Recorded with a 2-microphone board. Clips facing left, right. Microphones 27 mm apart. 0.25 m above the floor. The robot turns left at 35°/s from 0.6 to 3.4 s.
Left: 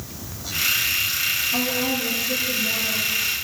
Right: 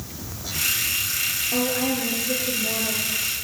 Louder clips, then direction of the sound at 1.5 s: Left 1 dB; 115° right.